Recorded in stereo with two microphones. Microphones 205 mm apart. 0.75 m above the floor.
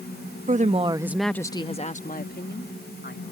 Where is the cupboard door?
I don't hear a cupboard door.